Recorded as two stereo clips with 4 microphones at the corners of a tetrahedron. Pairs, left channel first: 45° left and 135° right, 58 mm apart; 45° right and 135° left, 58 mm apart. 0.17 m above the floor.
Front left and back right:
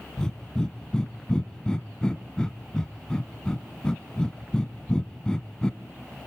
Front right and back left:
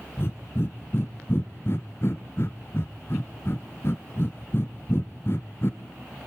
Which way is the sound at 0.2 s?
25° right.